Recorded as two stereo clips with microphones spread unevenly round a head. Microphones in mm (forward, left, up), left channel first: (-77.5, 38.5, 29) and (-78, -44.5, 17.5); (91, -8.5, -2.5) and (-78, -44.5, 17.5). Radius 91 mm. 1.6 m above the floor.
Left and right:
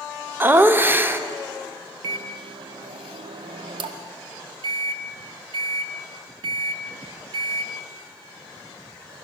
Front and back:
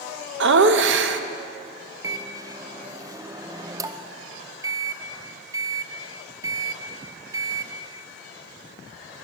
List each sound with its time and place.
0.4 s laughter: 160° right, 0.8 m
2.0 s a microwave: 105° right, 0.5 m